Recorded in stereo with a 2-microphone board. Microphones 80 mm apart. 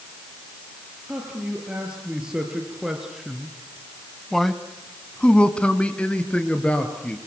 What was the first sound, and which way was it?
A man speaking, 10° right (ahead or behind).